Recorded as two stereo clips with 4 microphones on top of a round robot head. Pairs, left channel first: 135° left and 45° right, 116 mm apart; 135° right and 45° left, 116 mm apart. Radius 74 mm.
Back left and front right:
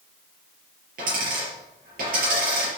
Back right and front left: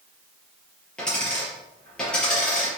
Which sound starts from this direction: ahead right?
A dropped coin, at 1.0 s.